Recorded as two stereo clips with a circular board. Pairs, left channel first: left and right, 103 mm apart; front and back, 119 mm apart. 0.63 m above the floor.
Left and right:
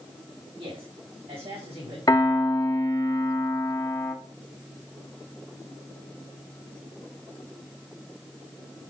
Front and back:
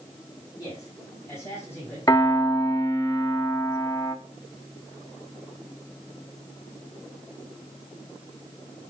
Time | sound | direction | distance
0.6 | a man speaking | 60° right | 5 m
2.1 | a piano | 50° left | 1.5 m